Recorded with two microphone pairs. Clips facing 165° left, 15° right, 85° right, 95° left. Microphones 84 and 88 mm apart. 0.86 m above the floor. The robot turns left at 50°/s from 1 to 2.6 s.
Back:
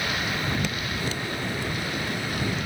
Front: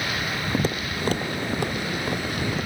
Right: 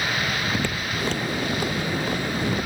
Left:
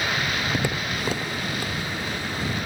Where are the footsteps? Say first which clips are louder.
Front 3 dB, even; 25° left; by 2.7 s 60° right.